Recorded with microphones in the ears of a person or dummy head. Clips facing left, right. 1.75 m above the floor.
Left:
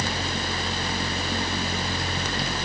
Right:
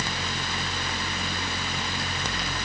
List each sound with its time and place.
Only background noise.